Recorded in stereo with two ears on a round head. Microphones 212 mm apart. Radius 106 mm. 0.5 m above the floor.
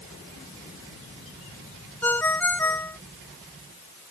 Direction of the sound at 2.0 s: 10° left (ahead or behind).